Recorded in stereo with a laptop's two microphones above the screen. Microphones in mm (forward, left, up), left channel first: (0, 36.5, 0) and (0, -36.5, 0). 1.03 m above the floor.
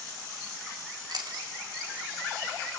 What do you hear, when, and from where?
1.1 s chewing: 80° right, 2.5 m